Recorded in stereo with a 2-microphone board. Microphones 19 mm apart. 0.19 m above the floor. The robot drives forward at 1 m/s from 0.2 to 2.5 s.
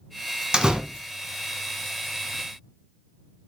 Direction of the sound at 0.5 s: 45° right (ahead or behind).